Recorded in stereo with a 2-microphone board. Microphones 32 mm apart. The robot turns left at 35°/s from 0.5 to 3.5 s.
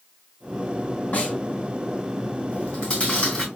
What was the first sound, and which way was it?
A snare drum, 55° left (ahead or behind).